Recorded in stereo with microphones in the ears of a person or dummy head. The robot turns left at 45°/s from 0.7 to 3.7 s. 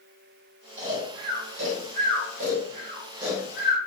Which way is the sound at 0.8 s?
45° right (ahead or behind).